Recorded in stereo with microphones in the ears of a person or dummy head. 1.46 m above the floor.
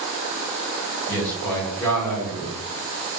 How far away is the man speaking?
About 1.0 m.